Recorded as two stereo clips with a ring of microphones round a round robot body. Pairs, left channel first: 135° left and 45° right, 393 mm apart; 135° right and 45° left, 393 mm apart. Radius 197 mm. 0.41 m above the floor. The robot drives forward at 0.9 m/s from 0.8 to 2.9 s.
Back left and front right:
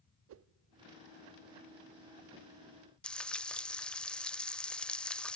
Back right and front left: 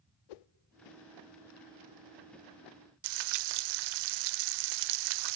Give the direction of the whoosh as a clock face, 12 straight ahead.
3 o'clock.